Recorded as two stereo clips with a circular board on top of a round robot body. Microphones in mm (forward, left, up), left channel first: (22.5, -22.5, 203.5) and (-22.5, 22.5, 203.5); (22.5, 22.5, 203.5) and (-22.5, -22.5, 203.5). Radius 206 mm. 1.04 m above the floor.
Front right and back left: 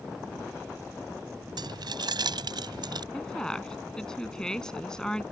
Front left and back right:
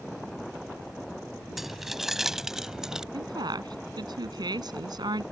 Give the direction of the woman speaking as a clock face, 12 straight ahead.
4 o'clock.